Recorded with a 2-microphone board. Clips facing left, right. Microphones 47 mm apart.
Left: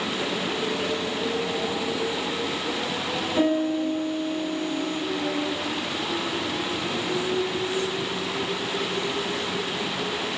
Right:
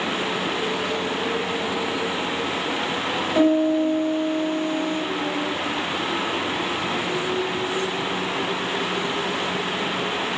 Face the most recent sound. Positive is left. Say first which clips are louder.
# right 5 dB
turn(degrees=-50)  # may be behind; listen again after turning